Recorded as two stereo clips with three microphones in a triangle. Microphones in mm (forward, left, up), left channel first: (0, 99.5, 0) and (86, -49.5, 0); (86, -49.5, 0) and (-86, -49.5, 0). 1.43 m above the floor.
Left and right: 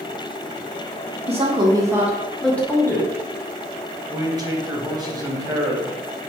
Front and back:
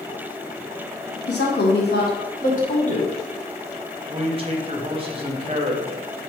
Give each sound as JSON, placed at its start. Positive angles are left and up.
{"t": 1.3, "sound": "a woman speaking", "azimuth_deg": -5, "distance_m": 0.9}
{"t": 4.1, "sound": "a man speaking", "azimuth_deg": -125, "distance_m": 0.7}